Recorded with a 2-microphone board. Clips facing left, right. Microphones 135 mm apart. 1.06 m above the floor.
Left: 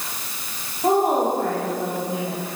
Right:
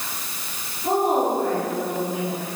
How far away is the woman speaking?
About 5.5 m.